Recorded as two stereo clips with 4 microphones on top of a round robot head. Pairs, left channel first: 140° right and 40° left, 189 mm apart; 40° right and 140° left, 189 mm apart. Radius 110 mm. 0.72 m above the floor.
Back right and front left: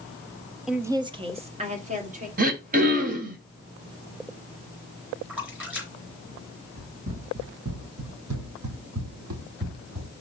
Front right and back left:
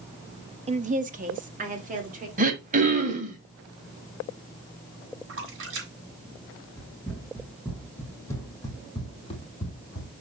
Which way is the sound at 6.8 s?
50° left.